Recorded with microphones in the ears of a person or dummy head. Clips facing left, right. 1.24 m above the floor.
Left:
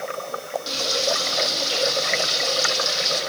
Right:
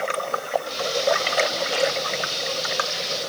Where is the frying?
80° left, 7.5 m.